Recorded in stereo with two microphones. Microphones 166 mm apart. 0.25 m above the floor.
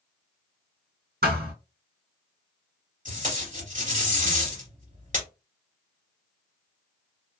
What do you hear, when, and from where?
1.2 s a thud: 80° right, 1.4 m
3.0 s tape being pulled: 50° right (ahead or behind), 1.9 m